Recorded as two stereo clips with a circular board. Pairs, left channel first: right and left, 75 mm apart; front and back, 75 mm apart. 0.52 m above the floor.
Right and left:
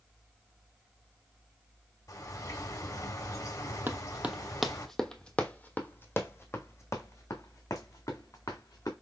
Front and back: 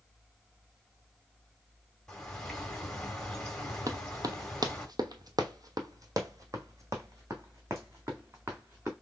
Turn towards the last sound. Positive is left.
turn(degrees=-125)